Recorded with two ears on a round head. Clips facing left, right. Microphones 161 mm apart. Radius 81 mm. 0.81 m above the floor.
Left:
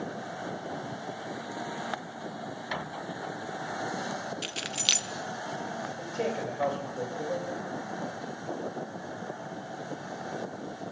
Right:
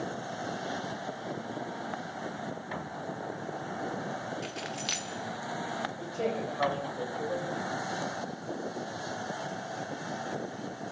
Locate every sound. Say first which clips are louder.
4.4 s keys jangling: right 1 dB; 35° left (ahead or behind), 0.5 m
6.0 s a man speaking: left 1 dB; 25° left (ahead or behind), 3.5 m